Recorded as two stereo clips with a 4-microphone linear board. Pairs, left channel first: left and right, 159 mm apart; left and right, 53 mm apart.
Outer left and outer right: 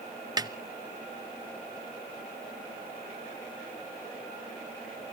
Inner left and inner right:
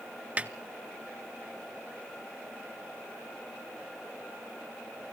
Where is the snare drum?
25° right (ahead or behind), 0.7 m.